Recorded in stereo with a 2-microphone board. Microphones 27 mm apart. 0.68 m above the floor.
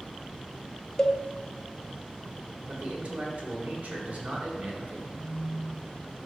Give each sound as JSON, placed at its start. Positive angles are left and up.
{"t": 1.0, "sound": "a cowbell", "side_deg": 30, "distance_m": 0.7}
{"t": 2.7, "sound": "a man speaking", "side_deg": -65, "distance_m": 1.5}
{"t": 5.1, "sound": "a phone buzzing", "side_deg": -25, "distance_m": 1.4}